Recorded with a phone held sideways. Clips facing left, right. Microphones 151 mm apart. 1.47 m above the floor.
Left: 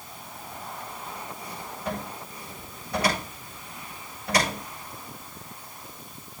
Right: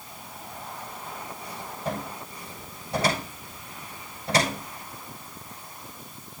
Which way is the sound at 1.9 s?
30° right (ahead or behind).